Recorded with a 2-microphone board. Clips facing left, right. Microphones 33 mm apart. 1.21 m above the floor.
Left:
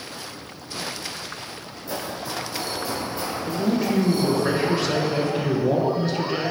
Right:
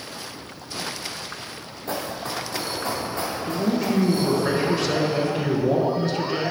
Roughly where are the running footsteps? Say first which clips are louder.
Right 1 dB; right.